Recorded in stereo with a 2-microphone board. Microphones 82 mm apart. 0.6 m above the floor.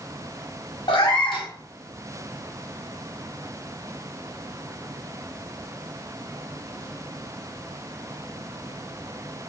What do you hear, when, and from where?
0.9 s a cat meowing: 75° left (ahead or behind), 0.9 m